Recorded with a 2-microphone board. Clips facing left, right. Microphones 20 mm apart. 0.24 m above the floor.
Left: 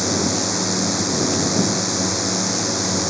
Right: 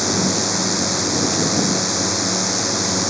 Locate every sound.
0.0 s a drone: 10° right (ahead or behind)